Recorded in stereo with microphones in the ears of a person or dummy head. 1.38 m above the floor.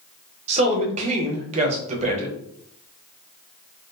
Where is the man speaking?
35° right (ahead or behind), 0.9 m.